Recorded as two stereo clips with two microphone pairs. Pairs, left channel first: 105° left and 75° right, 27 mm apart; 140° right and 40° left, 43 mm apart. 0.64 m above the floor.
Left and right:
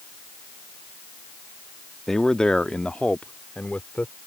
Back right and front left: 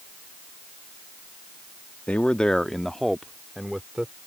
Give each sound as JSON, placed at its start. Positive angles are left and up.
{"t": 2.1, "sound": "a man speaking", "azimuth_deg": 180}